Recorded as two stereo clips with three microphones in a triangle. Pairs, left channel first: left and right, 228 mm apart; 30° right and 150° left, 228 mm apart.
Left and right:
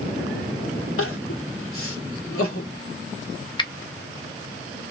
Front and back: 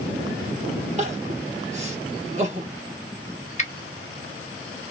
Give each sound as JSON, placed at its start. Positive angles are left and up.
{"t": 1.0, "sound": "crying", "azimuth_deg": 95, "distance_m": 1.2}
{"t": 3.6, "sound": "a finger snap", "azimuth_deg": 20, "distance_m": 0.8}